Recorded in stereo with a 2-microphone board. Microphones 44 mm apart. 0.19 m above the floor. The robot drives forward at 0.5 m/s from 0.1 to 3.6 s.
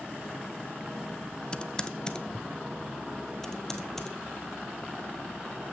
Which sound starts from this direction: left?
Typing on a keyboard, at 1.5 s.